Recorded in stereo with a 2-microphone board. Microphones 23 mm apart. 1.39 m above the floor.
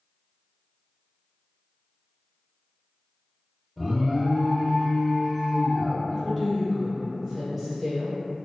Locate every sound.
3.8 s an alarm: centre (ahead or behind), 0.8 m
6.1 s a woman speaking: centre (ahead or behind), 1.1 m